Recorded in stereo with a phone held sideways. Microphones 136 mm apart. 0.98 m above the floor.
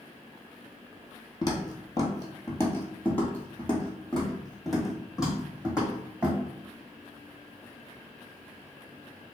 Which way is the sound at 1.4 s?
30° left (ahead or behind).